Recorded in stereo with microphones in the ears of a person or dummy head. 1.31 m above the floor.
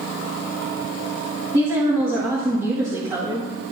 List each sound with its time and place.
1.5 s a woman speaking: 20° right (ahead or behind), 1.9 m